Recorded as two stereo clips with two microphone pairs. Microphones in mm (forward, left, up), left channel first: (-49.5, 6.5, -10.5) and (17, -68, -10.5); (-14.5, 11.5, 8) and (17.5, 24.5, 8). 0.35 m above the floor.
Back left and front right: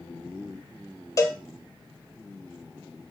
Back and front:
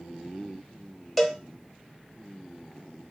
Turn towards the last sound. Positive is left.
turn(degrees=115)